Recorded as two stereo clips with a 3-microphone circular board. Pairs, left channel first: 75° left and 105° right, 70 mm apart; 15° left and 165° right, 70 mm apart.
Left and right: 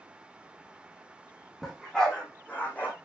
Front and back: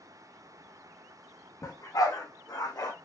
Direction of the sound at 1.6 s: 10° right.